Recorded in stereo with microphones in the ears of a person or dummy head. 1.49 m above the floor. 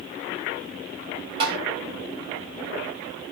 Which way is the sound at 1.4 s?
25° right (ahead or behind).